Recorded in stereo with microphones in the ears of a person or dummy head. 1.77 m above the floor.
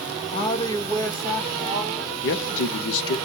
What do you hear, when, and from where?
0.3 s a woman speaking: 30° left (ahead or behind), 0.6 m; by 2.1 s 5° left (ahead or behind), 1.3 m
2.2 s a man speaking: 70° left (ahead or behind), 0.6 m